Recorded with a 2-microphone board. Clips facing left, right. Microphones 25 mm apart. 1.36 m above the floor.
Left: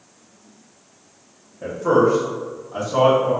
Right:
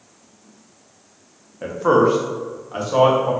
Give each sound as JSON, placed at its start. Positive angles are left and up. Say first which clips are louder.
{"t": 1.6, "sound": "a man speaking", "louder": "right 1 dB", "side_deg": -45, "distance_m": 0.7}